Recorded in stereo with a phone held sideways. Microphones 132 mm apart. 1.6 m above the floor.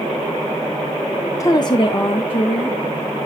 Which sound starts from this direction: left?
A woman speaking, at 1.4 s.